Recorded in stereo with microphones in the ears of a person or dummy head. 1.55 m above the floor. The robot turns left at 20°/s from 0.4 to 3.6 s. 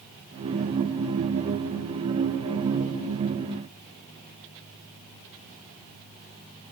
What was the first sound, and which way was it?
Only background noise.